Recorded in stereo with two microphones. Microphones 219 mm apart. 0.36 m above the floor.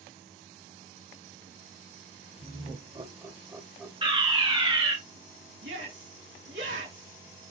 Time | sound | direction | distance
2.4 | laughter | 30° right (ahead or behind) | 1.1 m
4.0 | a fire alarm | 20° right (ahead or behind) | 1.8 m
5.6 | a shout | 65° right (ahead or behind) | 3 m